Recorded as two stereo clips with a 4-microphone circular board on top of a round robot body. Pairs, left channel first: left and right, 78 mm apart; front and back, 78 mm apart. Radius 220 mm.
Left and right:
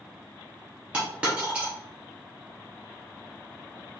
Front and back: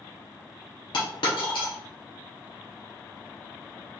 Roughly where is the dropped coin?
Ahead.